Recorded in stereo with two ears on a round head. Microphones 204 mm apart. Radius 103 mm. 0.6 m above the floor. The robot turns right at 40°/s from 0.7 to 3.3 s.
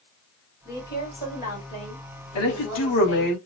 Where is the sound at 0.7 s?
15° left, 3.5 m; by 3.3 s 120° left, 3.5 m.